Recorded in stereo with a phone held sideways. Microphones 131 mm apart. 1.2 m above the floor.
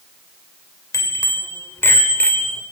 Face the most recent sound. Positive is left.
turn(degrees=10)  # may be behind; listen again after turning